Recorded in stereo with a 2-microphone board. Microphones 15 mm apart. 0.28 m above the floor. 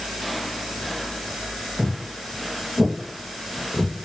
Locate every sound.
1.8 s footsteps: 40° right (ahead or behind), 2.5 m; by 3.9 s 20° right (ahead or behind), 3.5 m